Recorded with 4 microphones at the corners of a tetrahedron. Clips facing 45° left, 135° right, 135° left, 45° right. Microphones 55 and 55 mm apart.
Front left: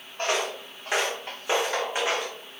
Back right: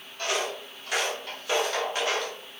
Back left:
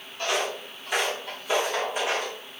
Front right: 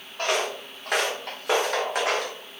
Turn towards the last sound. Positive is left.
turn(degrees=-30)